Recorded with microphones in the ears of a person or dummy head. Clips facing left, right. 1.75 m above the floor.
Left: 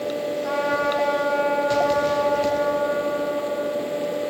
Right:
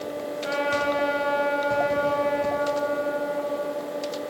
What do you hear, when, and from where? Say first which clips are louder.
0.4 s a trumpet: even; 40° right (ahead or behind), 5.5 m